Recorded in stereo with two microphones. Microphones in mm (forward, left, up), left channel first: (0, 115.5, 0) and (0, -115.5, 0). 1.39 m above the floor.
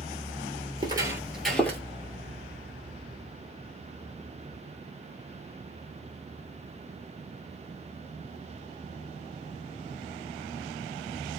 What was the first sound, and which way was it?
Footsteps, 20° right (ahead or behind).